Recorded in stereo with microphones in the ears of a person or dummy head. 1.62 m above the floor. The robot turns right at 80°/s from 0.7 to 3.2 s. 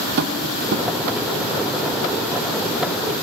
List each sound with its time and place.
0.2 s tapping: 60° right (ahead or behind), 0.8 m; by 0.9 s 45° right (ahead or behind), 0.8 m